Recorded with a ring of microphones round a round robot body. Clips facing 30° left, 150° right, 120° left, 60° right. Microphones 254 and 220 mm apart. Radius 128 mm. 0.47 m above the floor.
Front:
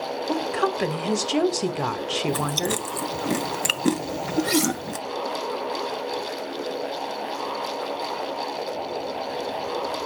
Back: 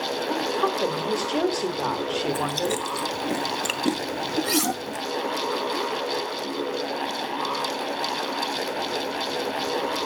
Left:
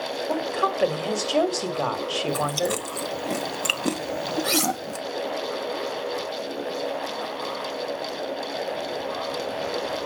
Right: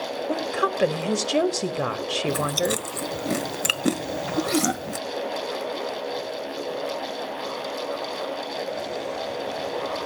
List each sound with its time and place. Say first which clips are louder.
0.3 s a woman speaking: front 2 dB, right 1 dB; straight ahead, 1.6 m
2.3 s chewing: even, right 1 dB; 10° right, 0.7 m
4.4 s cutlery clinking: front 4 dB, right 4 dB; 140° left, 4 m